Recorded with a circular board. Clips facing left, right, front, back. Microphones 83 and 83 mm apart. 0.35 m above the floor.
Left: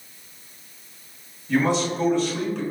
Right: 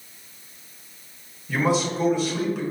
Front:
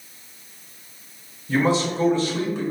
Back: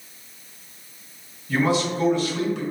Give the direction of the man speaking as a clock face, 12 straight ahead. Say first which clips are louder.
Left 1 dB, front 1 dB; 12 o'clock.